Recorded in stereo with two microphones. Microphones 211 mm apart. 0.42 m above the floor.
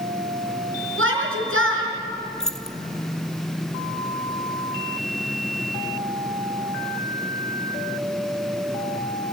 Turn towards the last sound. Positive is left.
turn(degrees=5)  # may be behind; listen again after turning